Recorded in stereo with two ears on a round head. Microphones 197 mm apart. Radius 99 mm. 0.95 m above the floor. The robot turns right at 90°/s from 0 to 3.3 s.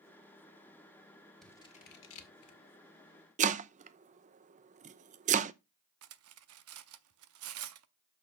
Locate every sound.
1.4 s scissors: centre (ahead or behind), 1.8 m; by 2.6 s 70° left (ahead or behind), 1.8 m
3.4 s chopping: 35° right (ahead or behind), 0.6 m
6.0 s cutlery clinking: 70° right (ahead or behind), 0.8 m